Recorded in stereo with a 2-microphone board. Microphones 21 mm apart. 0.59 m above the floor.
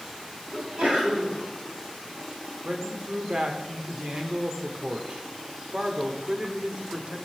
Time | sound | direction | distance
0.5 | a sneeze | 50° right (ahead or behind) | 4.5 m
2.6 | a man speaking | 40° right (ahead or behind) | 2.0 m